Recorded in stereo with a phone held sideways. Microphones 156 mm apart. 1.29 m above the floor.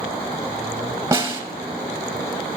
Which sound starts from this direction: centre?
A snare drum, at 1.1 s.